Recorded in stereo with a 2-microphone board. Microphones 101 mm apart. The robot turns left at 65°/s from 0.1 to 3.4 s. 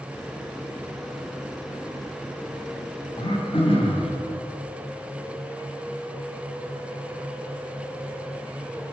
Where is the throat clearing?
50° left (ahead or behind), 4.5 m; by 4.1 s 65° left (ahead or behind), 4.5 m.